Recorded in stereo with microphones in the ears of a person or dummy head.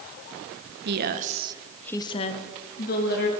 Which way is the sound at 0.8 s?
65° right (ahead or behind).